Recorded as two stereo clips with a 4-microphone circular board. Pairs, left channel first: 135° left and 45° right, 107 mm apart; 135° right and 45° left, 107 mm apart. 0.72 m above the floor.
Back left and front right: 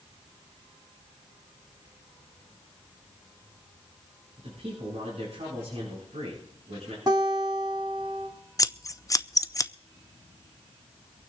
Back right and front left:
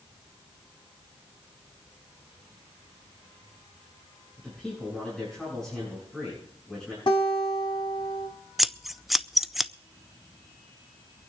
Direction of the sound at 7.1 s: 95° right.